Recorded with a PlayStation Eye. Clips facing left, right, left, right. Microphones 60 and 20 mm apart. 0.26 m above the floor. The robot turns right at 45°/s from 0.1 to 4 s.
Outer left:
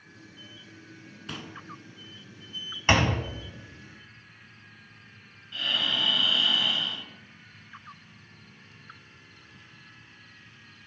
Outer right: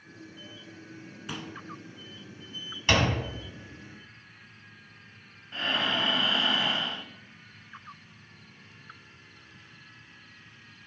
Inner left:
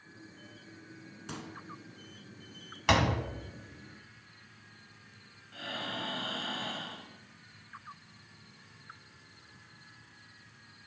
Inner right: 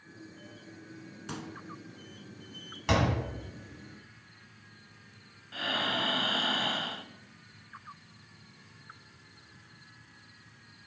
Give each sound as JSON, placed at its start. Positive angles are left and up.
{"t": 1.3, "sound": "a pop", "side_deg": -5, "distance_m": 1.1}
{"t": 2.9, "sound": "a door slam", "side_deg": 25, "distance_m": 1.4}
{"t": 5.5, "sound": "breathing", "side_deg": -40, "distance_m": 0.6}